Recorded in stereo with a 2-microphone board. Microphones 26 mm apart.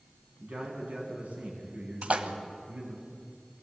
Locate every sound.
0.4 s a man speaking: 50° right (ahead or behind), 8 m
2.0 s a splash: 55° right (ahead or behind), 1.5 m